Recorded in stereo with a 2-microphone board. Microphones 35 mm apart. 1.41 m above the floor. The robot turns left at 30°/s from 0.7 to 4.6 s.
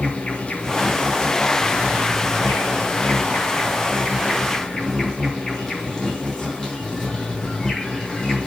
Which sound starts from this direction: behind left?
An insect, at 0.0 s.